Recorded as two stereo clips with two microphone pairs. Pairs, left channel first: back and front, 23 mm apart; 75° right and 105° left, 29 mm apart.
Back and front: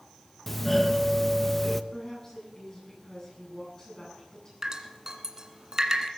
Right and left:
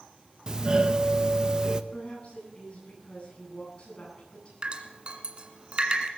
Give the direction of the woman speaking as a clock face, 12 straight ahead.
4 o'clock.